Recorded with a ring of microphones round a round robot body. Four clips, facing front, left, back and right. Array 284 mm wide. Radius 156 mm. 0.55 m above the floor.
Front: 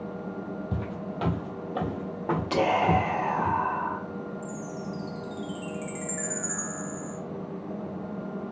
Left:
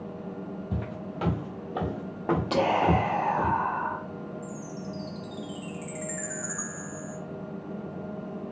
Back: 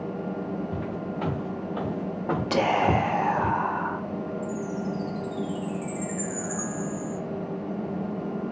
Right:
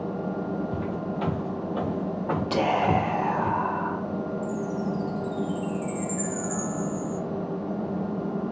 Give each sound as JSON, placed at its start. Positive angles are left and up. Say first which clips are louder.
{"t": 0.7, "sound": "footsteps", "louder": "right 6 dB, back 3 dB", "azimuth_deg": 25, "distance_m": 1.0}
{"t": 2.5, "sound": "whispering", "louder": "right 1 dB, back 1 dB", "azimuth_deg": 180, "distance_m": 0.6}
{"t": 4.4, "sound": "a chime", "louder": "right 9 dB, back 5 dB", "azimuth_deg": 70, "distance_m": 0.6}